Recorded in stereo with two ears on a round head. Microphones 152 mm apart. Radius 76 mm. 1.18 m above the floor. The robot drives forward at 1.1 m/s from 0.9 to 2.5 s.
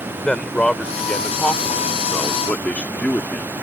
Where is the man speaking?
5° left (ahead or behind); by 3.5 s 10° left (ahead or behind).